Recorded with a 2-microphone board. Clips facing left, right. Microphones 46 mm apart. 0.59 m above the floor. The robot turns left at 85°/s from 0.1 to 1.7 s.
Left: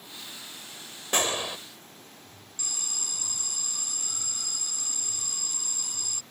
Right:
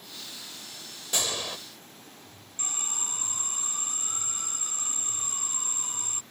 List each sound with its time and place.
1.1 s a gunshot: 50° left; by 1.6 s 10° left
2.6 s an alarm: 35° right (ahead or behind)